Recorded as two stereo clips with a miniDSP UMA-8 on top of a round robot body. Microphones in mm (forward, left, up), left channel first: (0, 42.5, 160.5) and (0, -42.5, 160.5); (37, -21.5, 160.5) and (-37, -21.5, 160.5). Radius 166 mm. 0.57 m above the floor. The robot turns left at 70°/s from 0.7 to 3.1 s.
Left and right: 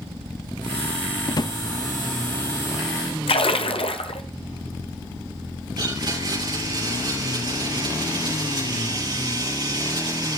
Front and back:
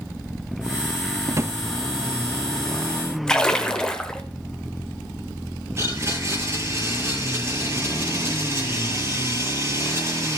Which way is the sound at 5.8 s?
125° right.